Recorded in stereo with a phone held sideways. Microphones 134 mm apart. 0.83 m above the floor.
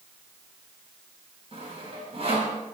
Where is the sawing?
45° right (ahead or behind), 5.5 m.